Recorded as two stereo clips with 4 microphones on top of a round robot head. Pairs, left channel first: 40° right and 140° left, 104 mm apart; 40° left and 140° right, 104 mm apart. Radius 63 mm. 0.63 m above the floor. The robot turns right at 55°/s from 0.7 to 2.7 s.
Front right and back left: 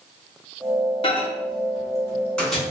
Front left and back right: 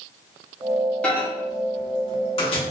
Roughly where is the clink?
No clink in this recording.